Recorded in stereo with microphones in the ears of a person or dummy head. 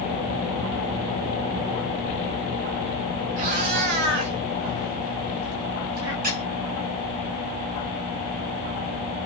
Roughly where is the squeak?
Right.